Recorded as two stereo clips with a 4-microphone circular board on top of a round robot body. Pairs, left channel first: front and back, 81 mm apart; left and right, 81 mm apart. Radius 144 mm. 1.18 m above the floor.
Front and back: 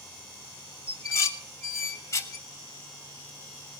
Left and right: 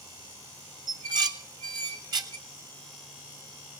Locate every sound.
0.9 s dishes clattering: 55° right, 1.1 m